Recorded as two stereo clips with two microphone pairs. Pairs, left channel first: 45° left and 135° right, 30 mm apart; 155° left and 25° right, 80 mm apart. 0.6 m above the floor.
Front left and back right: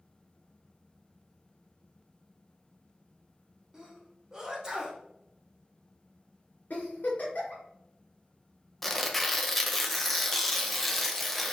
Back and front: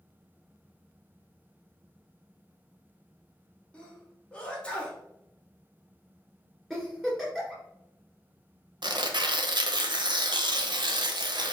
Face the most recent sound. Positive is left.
turn(degrees=-40)